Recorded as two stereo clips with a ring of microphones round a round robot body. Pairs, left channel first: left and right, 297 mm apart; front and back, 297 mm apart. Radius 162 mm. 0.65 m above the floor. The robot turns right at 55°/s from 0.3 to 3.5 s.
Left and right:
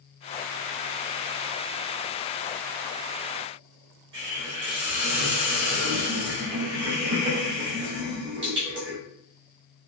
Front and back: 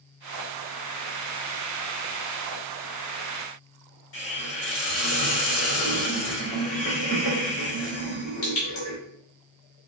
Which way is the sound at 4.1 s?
35° right.